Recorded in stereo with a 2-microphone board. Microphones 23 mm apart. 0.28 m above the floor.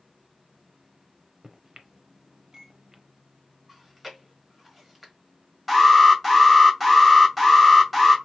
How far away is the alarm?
About 2 m.